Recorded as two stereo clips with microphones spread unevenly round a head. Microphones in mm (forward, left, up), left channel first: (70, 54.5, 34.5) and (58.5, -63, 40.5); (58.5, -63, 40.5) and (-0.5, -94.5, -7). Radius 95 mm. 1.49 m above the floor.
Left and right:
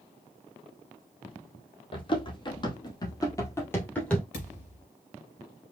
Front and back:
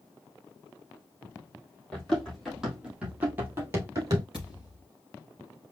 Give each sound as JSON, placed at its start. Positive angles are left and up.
{"t": 1.9, "sound": "running footsteps", "azimuth_deg": 55, "distance_m": 2.0}
{"t": 4.3, "sound": "a thud", "azimuth_deg": 105, "distance_m": 3.0}